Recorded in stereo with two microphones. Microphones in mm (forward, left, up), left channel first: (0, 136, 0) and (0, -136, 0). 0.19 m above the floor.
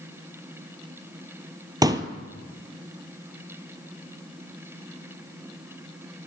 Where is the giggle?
No giggle in this recording.